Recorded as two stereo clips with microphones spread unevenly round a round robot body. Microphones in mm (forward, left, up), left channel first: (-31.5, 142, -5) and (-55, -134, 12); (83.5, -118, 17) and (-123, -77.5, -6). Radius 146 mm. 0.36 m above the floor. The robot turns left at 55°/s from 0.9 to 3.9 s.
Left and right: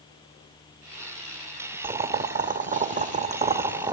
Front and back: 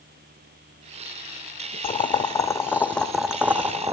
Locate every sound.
1.8 s boiling: 45° right, 0.9 m; by 3.9 s 155° right, 0.9 m